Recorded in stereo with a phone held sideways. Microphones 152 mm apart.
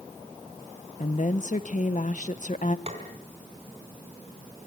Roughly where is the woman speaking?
Left.